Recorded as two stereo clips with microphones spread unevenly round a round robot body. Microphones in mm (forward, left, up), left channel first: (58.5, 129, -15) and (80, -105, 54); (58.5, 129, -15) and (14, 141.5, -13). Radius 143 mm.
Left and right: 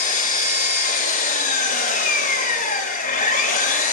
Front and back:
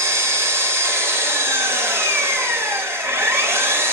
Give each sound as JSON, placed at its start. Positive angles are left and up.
{"t": 0.0, "sound": "an engine running", "azimuth_deg": 165, "distance_m": 0.8}